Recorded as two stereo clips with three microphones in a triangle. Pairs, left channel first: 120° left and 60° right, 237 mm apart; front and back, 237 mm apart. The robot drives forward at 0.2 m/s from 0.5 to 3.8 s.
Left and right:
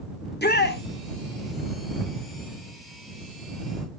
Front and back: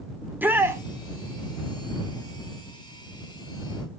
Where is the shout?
100° left, 1.0 m; by 0.8 s 105° left, 1.0 m.